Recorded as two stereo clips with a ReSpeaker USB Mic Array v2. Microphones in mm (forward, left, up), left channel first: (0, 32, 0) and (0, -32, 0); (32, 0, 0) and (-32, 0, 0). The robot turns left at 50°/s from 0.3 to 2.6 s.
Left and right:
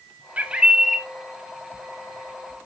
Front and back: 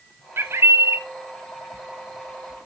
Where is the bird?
145° right, 0.7 m; by 1.0 s straight behind, 0.7 m.